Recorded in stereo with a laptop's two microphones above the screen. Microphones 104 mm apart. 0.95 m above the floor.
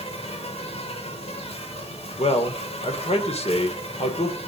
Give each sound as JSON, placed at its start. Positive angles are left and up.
{"t": 0.0, "sound": "an insect", "side_deg": 75, "distance_m": 3.5}
{"t": 2.2, "sound": "a man speaking", "side_deg": 85, "distance_m": 2.5}